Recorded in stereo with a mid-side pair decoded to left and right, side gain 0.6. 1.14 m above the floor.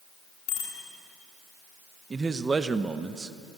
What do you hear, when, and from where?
0.5 s a bicycle bell: 65° left, 7.5 m
2.1 s a man speaking: 25° right, 0.9 m